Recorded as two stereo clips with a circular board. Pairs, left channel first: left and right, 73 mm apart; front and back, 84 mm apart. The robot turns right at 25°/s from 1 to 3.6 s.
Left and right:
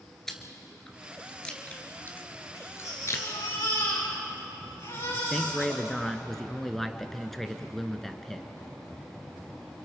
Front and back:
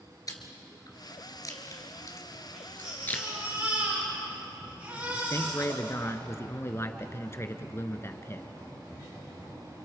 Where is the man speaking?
5° left, 1.3 m.